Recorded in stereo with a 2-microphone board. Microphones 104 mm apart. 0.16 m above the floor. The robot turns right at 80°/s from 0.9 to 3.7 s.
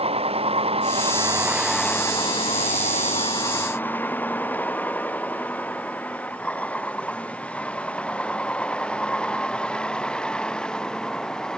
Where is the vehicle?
70° right (ahead or behind); by 11.6 s 5° left (ahead or behind).